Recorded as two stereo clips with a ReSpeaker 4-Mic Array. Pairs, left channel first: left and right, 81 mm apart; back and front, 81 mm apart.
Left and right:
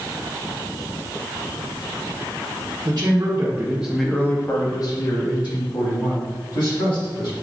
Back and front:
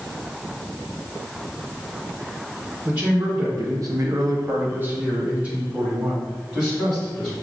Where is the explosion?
I don't hear an explosion.